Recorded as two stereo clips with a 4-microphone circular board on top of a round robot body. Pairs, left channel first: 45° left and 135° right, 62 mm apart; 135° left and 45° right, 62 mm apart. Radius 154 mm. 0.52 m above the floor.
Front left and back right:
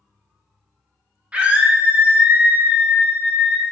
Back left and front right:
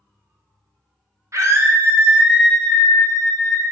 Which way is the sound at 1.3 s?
70° right.